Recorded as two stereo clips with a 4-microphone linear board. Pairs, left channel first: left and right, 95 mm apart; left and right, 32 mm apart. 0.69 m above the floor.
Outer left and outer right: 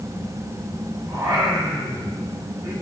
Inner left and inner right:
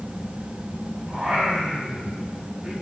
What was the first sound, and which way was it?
Singing, 40° right (ahead or behind).